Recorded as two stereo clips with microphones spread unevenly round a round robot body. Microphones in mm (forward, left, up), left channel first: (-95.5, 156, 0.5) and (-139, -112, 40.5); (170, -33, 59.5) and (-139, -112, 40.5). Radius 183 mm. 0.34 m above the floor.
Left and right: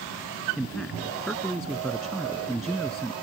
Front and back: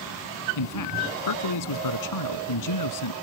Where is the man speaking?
5° right.